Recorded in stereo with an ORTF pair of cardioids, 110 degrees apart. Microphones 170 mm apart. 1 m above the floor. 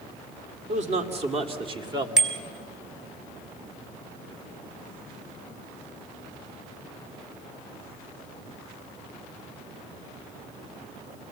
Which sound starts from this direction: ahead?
A bicycle bell, at 2.2 s.